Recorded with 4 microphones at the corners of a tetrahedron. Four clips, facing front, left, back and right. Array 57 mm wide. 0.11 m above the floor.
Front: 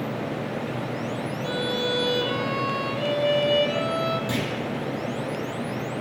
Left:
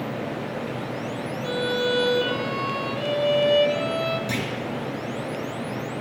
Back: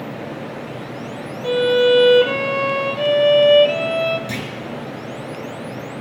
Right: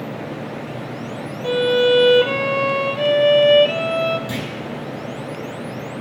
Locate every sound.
1.4 s a violin: 135° right, 0.6 m
4.3 s a clunk: 140° left, 1.7 m